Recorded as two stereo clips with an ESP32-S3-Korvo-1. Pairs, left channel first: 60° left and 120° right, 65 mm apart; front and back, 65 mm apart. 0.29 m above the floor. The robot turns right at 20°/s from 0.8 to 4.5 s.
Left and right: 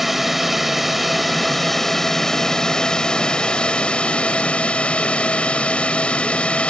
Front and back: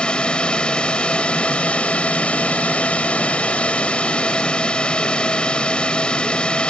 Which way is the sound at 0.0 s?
35° right.